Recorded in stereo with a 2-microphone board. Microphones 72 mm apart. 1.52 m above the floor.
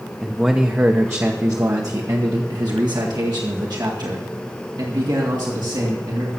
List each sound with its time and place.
0.2 s a man speaking: 5° right (ahead or behind), 0.9 m; by 6.3 s 90° right, 3.5 m